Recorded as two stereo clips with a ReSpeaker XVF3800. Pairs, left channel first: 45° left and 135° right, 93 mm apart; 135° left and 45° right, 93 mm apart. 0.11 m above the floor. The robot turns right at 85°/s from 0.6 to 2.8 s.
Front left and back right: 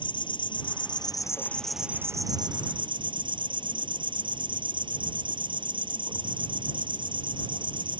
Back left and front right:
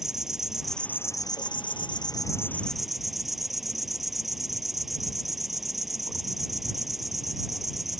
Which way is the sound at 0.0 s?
40° left.